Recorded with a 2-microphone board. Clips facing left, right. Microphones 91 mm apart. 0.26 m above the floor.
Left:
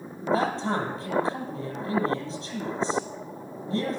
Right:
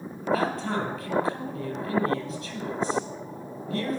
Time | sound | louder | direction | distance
0.2 | a man speaking | left 1 dB | 25° left (ahead or behind) | 6.5 m